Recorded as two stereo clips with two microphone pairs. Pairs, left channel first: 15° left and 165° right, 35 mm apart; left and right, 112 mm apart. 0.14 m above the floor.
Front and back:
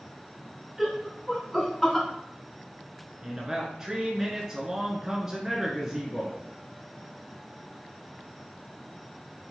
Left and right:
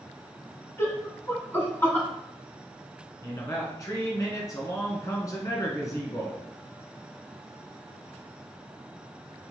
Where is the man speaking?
130° left, 1.5 m.